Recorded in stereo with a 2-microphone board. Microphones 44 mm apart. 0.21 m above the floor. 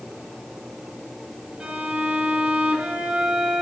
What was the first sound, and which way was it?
A violin, 25° right (ahead or behind).